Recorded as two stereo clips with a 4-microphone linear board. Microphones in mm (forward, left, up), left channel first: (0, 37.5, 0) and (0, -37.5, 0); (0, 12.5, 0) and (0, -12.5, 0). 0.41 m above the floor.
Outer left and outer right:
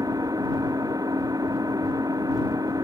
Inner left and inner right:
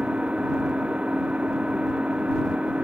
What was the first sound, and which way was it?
An engine running, 50° right (ahead or behind).